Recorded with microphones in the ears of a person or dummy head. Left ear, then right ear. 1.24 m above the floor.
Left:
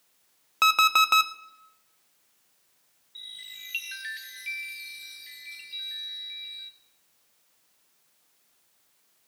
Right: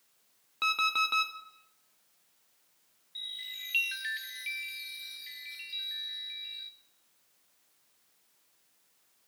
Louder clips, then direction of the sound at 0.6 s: Left 8 dB; 35° left (ahead or behind).